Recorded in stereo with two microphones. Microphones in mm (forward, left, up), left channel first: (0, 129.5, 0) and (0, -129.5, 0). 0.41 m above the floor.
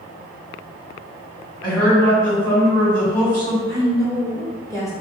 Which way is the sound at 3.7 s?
10° left (ahead or behind).